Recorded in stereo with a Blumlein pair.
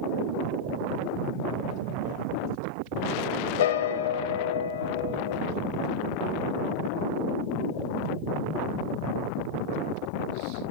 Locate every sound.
3.6 s a piano: 65° left, 0.7 m